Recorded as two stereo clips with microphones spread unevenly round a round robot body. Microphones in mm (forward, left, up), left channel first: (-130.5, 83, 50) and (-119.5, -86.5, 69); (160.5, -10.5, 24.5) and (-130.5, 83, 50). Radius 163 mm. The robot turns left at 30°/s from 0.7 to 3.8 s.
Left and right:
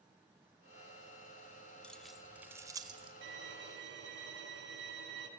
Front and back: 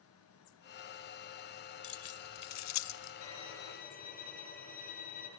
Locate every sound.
1.8 s keys jangling: 15° left, 1.3 m; by 3.1 s 25° right, 1.3 m
3.2 s a violin: 60° right, 4.5 m; by 5.3 s 80° right, 4.5 m